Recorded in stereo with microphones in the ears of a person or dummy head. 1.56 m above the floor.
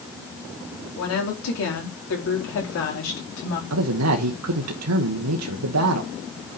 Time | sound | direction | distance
1.0 | a woman speaking | 85° left | 4 m
3.7 | a man speaking | 90° right | 1.1 m